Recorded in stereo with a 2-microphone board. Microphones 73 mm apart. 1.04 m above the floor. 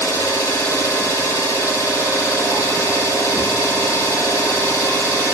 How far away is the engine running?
About 4.5 m.